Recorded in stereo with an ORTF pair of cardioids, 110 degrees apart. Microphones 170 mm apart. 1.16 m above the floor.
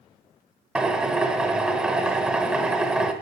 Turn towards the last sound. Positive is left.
turn(degrees=-5)